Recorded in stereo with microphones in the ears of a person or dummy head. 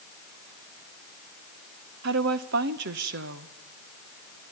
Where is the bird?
No bird in this recording.